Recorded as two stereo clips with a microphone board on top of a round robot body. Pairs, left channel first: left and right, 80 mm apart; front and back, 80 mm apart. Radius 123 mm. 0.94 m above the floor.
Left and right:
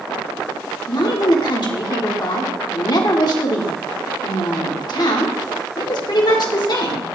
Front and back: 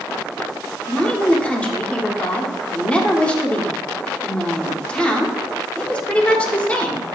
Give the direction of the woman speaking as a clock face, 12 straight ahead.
10 o'clock.